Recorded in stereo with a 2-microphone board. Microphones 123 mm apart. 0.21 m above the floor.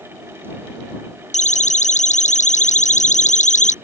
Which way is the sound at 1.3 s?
75° left (ahead or behind).